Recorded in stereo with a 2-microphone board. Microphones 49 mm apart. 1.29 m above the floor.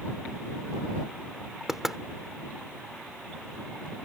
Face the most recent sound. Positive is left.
turn(degrees=-10)  # may be behind; listen again after turning